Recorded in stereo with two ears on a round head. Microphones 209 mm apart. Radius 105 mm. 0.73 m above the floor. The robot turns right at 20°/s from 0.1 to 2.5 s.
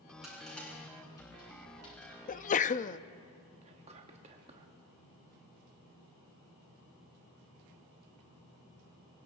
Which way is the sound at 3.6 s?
25° right (ahead or behind).